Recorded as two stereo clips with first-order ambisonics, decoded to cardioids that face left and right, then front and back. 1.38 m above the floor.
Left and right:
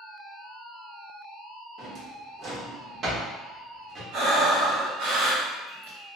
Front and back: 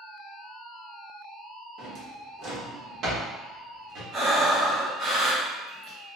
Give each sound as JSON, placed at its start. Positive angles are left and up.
{"t": 1.8, "sound": "a drawer", "azimuth_deg": -145, "distance_m": 1.0}
{"t": 4.1, "sound": "breathing", "azimuth_deg": -110, "distance_m": 1.0}